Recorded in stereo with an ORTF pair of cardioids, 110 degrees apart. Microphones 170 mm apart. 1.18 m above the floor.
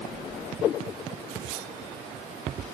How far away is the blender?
I don't hear a blender.